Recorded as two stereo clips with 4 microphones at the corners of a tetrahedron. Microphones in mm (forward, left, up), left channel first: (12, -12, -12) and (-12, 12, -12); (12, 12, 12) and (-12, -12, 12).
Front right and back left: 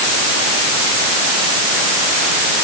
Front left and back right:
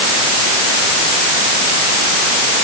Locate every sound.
Only background noise.